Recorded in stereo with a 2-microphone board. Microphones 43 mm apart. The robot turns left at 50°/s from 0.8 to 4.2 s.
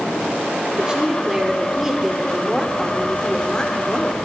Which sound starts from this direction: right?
A woman speaking, at 0.8 s.